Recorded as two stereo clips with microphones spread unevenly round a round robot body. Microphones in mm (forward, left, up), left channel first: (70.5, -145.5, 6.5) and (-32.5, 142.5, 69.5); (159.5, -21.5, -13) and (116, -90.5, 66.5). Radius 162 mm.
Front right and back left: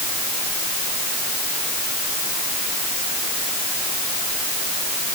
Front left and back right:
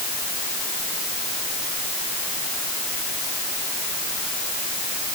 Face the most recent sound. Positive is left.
No sound to turn to.